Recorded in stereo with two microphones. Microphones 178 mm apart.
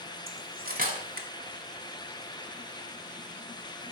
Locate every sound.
0.3 s cutlery clinking: 50° right (ahead or behind), 1.1 m